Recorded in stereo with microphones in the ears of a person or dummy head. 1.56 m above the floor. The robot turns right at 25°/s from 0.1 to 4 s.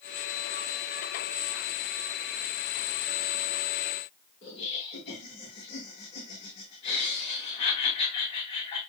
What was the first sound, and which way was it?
Laughter, 30° left (ahead or behind).